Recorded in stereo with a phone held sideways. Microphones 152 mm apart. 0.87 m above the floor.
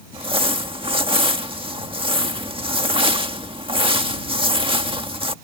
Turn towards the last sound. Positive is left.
turn(degrees=-35)  # may be behind; listen again after turning